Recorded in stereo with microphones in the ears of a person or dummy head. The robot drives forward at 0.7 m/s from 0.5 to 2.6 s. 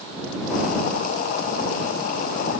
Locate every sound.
Only background noise.